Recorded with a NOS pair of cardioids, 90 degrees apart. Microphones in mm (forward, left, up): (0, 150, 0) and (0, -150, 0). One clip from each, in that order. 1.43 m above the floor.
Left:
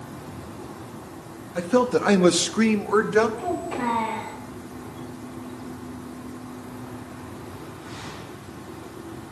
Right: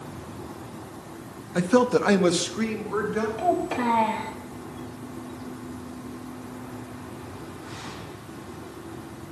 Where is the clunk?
No clunk in this recording.